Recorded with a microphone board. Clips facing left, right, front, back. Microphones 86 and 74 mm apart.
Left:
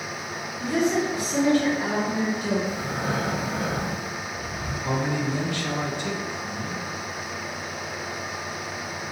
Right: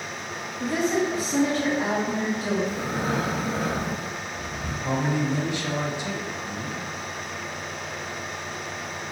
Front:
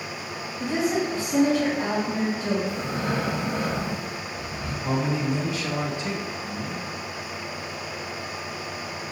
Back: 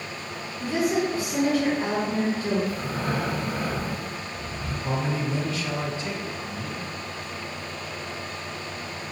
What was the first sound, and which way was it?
A woman speaking, 55° right.